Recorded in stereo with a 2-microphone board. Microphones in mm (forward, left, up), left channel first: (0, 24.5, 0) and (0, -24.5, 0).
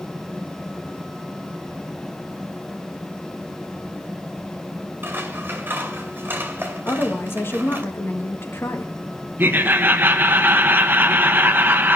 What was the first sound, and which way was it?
Scissors, 40° right (ahead or behind).